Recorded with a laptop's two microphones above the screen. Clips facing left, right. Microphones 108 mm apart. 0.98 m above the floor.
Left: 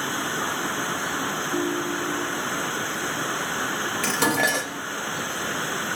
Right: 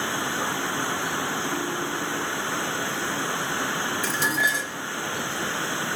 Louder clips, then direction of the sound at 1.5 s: Left 3 dB; 30° right (ahead or behind).